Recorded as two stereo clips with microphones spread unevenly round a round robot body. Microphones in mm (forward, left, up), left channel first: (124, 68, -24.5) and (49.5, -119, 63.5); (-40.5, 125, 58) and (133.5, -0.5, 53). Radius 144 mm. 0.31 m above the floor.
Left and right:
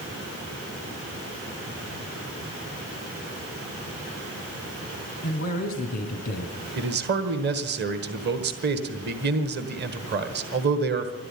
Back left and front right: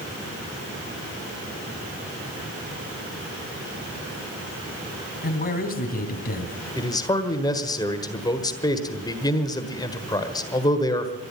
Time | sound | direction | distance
5.2 | a man speaking | 100° left | 3 m
6.8 | a man speaking | 155° right | 1.5 m